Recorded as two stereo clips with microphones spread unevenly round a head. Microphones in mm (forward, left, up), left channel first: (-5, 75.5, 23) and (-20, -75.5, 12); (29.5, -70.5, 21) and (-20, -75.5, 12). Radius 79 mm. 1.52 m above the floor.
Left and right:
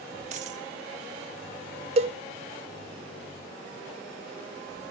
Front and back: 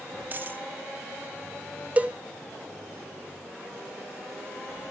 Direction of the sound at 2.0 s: 120° right.